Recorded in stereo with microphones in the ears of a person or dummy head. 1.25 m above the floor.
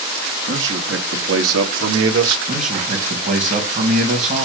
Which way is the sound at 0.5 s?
75° right (ahead or behind).